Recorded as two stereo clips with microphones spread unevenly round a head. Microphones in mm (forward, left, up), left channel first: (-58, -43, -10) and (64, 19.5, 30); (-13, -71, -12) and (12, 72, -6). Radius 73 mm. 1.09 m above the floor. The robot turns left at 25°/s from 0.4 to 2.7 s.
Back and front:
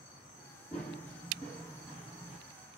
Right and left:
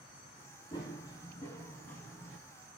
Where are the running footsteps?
50° right, 1.3 m; by 2.4 s 10° right, 1.1 m.